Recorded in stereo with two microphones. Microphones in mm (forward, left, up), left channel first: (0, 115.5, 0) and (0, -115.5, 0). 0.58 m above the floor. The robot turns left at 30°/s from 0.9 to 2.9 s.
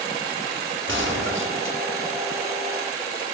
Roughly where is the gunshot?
Right.